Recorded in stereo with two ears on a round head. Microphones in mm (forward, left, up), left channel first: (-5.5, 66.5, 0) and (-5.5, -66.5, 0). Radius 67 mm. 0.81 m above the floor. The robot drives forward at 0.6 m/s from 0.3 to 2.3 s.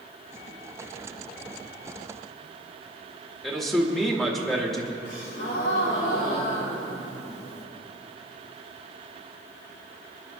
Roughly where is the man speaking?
Centre.